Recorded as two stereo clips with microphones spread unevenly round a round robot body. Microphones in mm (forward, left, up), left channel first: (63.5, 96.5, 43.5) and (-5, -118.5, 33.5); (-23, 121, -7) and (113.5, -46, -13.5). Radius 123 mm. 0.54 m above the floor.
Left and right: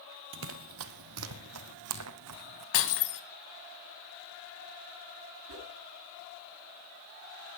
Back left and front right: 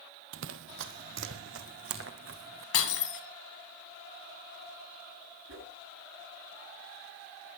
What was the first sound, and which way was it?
Running footsteps, 80° right.